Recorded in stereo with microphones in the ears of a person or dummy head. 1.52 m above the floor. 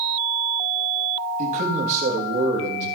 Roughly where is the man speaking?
Right.